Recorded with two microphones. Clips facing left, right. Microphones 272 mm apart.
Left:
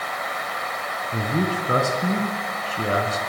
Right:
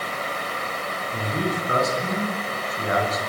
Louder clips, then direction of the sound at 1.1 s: Left 3 dB; 35° left (ahead or behind).